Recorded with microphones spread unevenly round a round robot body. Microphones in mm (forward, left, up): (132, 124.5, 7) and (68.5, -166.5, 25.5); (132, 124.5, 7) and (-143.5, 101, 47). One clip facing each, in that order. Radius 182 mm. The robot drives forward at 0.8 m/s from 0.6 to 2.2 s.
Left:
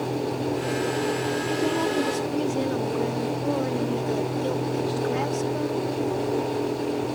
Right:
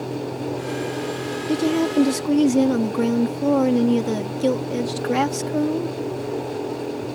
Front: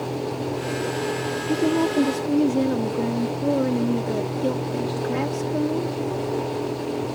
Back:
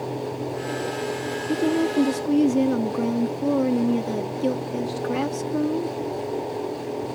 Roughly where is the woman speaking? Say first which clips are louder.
Right 7 dB, front 1 dB; right.